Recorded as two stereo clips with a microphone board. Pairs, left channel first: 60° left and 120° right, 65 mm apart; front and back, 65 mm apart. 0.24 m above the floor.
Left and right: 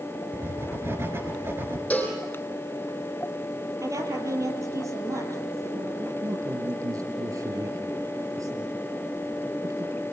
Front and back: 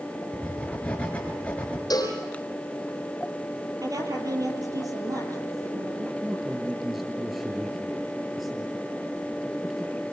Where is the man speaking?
90° right, 4 m.